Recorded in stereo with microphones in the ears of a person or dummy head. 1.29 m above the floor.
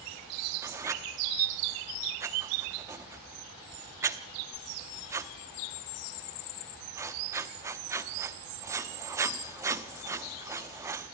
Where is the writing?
20° right (ahead or behind), 0.9 m.